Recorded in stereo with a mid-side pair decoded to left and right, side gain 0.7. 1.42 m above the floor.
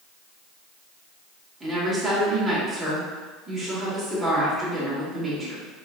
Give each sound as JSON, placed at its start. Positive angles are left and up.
{"t": 1.6, "sound": "a woman speaking", "azimuth_deg": -25, "distance_m": 2.0}